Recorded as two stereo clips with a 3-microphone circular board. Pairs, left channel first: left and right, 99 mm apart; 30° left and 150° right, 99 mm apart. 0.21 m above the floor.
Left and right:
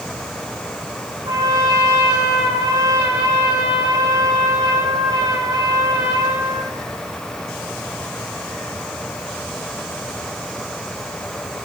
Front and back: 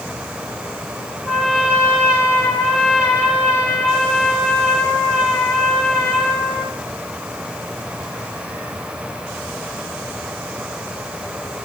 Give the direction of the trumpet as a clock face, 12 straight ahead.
2 o'clock.